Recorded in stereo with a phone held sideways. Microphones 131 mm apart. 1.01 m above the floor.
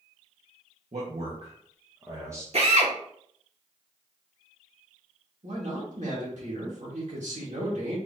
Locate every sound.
0.9 s a man speaking: 55° right (ahead or behind), 1.3 m; by 2.4 s 15° right (ahead or behind), 0.9 m
2.5 s a drill: 55° right (ahead or behind), 1.2 m
5.4 s a man speaking: 70° right (ahead or behind), 1.9 m